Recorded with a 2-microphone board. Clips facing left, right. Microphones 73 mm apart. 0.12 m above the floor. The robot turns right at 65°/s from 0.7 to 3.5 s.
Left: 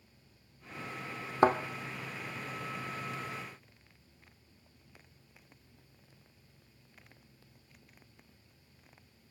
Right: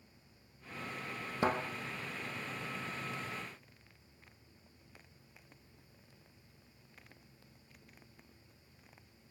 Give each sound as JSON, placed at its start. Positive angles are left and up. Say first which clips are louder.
{"t": 1.4, "sound": "a thud", "louder": "left 7 dB", "side_deg": 45, "distance_m": 0.5}